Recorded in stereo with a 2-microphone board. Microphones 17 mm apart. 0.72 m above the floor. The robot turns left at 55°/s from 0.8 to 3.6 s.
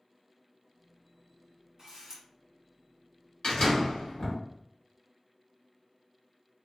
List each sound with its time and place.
1.8 s a camera shutter: 50° right (ahead or behind), 1.2 m; by 2.2 s 35° right (ahead or behind), 1.2 m
3.4 s a door slam: 65° left (ahead or behind), 1.3 m; by 4.4 s 55° left (ahead or behind), 1.3 m